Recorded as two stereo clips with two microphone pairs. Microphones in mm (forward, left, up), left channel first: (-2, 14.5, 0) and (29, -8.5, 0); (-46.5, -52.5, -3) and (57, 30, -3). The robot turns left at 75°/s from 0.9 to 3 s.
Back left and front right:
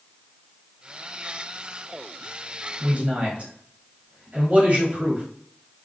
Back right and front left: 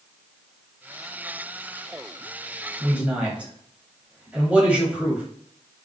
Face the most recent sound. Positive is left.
turn(degrees=-35)